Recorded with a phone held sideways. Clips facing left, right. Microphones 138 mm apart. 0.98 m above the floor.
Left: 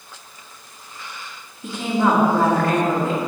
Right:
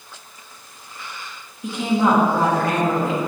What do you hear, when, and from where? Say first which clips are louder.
1.6 s a woman speaking: right 1 dB; 15° right (ahead or behind), 1.5 m